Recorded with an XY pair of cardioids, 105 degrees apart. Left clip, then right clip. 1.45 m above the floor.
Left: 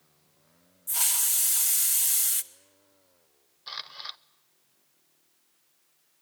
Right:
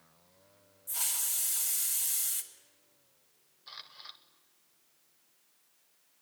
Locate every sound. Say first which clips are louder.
0.9 s a hiss: left 7 dB; 45° left, 1.2 m
3.7 s a camera shutter: left 9 dB; 55° left, 0.6 m